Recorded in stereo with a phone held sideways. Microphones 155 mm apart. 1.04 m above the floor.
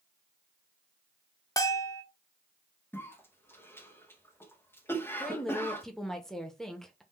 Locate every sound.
1.6 s a bell: 20° left (ahead or behind), 0.6 m
2.9 s a cough: 15° left (ahead or behind), 1.2 m
5.2 s a woman speaking: 5° left (ahead or behind), 0.7 m